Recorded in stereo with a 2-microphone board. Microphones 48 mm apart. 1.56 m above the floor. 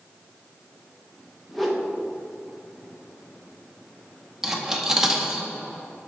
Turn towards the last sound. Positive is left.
turn(degrees=-10)  # may be behind; listen again after turning